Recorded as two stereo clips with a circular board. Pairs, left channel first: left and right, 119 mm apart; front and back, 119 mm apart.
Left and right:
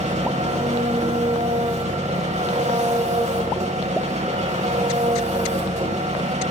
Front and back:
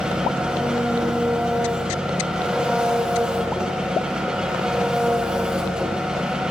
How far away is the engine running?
About 5 m.